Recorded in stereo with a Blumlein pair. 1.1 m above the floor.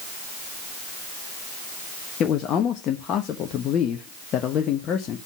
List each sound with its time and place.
2.2 s a man speaking: 30° left, 0.8 m